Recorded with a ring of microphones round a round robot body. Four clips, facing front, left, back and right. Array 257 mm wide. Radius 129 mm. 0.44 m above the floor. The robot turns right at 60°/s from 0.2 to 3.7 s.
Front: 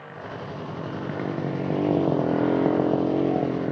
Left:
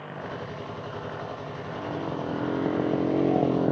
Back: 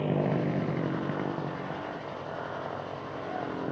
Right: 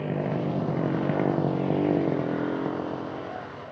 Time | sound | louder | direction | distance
0.0 | a motorcycle | right 8 dB, back 8 dB | 140° right | ?